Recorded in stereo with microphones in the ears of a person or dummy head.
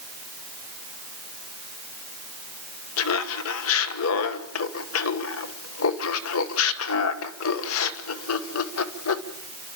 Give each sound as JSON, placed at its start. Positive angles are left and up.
{"t": 3.0, "sound": "laughter", "side_deg": 70, "distance_m": 1.2}